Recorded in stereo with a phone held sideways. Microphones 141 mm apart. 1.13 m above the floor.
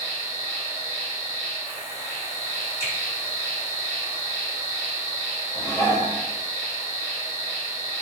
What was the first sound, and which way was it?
An insect, 25° right (ahead or behind).